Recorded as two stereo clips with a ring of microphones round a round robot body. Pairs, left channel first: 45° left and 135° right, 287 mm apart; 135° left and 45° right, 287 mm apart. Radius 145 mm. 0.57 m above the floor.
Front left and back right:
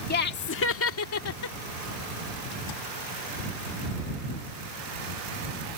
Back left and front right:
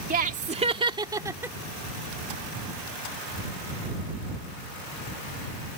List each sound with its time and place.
0.1 s laughter: 5° left; by 1.6 s 35° left